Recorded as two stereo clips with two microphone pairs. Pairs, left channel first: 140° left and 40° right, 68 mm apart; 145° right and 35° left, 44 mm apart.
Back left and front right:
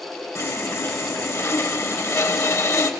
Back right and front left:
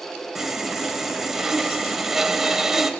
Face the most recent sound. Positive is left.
turn(degrees=120)